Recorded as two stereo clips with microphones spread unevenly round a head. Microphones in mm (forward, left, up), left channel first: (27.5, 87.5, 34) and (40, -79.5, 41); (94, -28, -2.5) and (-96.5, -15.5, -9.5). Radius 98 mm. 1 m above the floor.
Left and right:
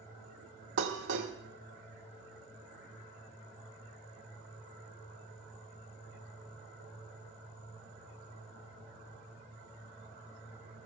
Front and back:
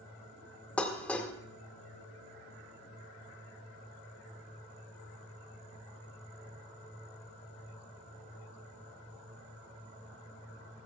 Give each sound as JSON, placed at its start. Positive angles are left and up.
{"t": 0.8, "sound": "dishes clattering", "azimuth_deg": -85, "distance_m": 1.9}